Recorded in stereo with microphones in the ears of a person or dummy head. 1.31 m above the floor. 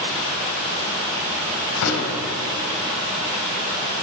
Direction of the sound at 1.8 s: 80° left.